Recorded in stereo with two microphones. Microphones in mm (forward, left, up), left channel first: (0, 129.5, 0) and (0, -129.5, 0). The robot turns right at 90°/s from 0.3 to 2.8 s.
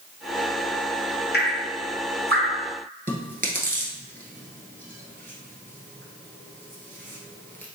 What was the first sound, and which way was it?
Dripping, 40° left (ahead or behind).